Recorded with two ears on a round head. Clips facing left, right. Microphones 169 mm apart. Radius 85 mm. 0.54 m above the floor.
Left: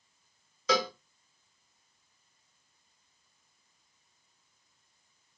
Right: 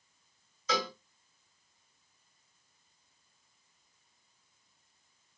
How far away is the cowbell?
About 1.1 m.